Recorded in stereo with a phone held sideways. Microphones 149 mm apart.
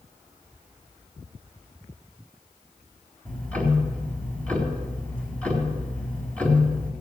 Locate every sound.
3.2 s ticking: 10° left (ahead or behind), 3.5 m